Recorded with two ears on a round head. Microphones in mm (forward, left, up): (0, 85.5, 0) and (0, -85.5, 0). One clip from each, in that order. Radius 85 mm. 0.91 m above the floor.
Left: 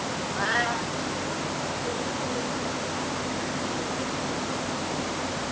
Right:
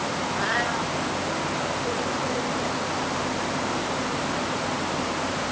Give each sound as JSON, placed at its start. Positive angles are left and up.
{"t": 0.3, "sound": "a cat meowing", "side_deg": 5}